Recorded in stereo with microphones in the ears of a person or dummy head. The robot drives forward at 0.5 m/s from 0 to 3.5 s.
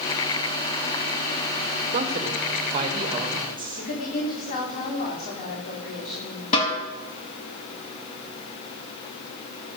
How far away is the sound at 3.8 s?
About 3.5 m.